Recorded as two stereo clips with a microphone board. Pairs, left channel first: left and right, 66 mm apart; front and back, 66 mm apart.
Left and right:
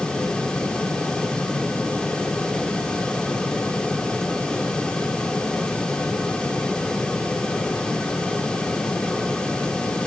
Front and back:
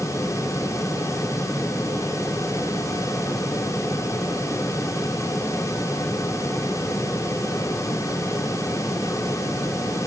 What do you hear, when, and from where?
Only background noise.